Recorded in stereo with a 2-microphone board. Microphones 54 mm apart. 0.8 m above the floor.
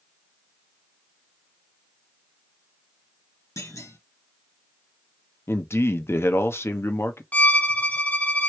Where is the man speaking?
50° left (ahead or behind), 0.7 m.